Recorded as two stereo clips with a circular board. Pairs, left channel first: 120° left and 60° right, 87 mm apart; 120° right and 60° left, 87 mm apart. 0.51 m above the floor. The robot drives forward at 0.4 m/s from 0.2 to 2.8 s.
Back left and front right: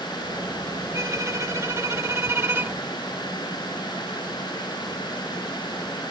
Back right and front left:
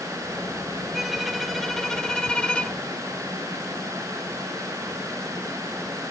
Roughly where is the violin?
Ahead right.